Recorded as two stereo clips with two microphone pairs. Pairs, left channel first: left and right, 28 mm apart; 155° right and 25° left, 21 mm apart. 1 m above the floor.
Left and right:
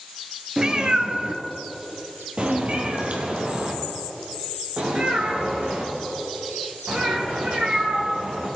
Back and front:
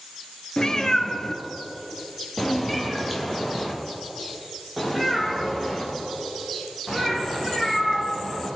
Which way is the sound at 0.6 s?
130° right.